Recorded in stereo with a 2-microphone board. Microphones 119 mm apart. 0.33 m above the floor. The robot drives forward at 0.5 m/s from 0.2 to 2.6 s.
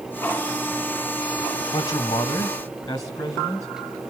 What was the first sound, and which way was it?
A man speaking, 35° left (ahead or behind).